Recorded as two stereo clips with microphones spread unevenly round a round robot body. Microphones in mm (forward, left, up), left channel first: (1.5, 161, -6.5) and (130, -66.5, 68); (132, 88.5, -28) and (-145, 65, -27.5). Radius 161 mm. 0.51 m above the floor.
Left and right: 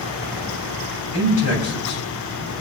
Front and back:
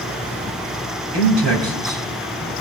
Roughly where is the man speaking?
Behind.